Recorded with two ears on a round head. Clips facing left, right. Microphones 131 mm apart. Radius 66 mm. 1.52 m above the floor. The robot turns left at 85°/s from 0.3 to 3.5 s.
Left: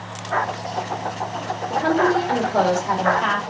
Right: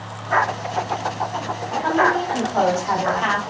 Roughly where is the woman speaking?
Behind left.